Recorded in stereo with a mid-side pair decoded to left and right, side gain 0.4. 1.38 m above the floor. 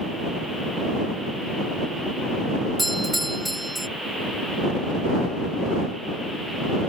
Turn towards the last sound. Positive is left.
turn(degrees=-5)